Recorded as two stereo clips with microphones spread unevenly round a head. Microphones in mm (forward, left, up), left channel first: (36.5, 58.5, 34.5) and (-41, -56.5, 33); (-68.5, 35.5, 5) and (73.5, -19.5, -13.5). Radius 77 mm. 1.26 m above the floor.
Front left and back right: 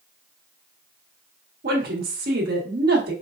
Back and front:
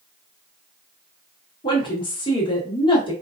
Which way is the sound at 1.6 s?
140° right.